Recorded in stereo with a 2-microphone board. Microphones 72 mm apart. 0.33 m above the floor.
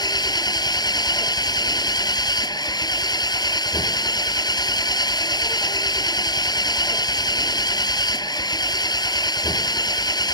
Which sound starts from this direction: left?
An engine running, at 0.0 s.